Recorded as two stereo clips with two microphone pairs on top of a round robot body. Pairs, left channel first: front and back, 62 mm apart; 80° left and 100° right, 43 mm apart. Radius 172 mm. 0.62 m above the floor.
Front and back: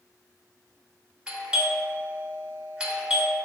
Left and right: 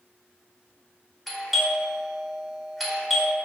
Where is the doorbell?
170° right, 1.1 m.